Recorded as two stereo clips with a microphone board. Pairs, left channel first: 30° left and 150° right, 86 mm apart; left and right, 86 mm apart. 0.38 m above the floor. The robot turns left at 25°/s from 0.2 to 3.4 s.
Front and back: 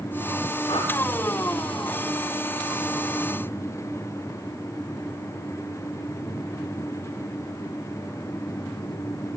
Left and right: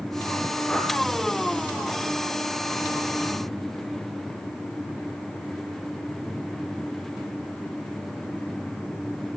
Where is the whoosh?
10° left, 3.5 m; by 0.9 s 5° left, 3.5 m.